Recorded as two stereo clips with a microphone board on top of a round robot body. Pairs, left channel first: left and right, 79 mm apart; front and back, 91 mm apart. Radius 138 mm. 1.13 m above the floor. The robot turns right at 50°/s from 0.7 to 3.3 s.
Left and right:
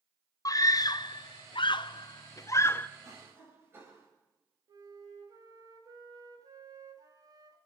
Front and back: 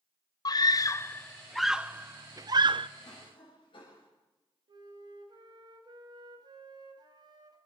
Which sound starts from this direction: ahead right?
A cough, at 3.0 s.